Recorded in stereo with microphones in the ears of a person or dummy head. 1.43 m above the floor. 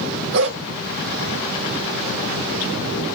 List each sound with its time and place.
0.3 s a dog barking: 60° right (ahead or behind), 2 m